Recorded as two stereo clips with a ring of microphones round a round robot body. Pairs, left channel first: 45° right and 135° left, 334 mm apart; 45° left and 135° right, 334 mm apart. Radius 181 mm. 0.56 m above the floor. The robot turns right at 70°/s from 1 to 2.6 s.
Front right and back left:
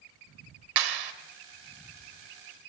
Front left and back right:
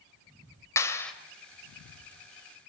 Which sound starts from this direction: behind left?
A clap, at 0.8 s.